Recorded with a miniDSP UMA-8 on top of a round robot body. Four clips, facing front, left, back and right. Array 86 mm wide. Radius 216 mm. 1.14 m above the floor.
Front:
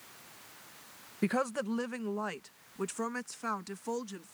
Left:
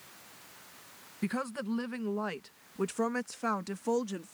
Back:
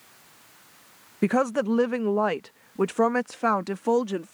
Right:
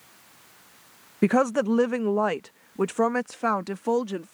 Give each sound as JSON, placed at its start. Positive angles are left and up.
{"t": 1.2, "sound": "a woman speaking", "azimuth_deg": -120}